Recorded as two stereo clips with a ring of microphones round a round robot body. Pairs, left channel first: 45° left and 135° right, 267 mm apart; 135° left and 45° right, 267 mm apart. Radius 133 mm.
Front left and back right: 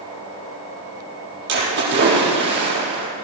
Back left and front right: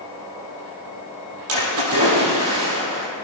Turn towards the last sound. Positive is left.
turn(degrees=-85)